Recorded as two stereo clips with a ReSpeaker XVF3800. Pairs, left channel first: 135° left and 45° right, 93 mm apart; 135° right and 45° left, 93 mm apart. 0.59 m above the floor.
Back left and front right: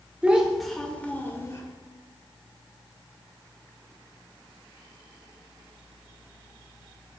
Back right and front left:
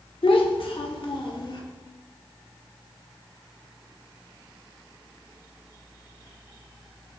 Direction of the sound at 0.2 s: 120° right.